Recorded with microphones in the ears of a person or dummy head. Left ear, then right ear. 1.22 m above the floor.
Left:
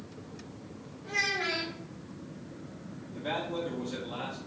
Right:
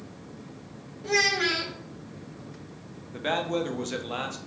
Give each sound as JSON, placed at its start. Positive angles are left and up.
{"t": 1.0, "sound": "a child speaking", "side_deg": -75, "distance_m": 1.3}
{"t": 3.1, "sound": "a man speaking", "side_deg": -50, "distance_m": 0.8}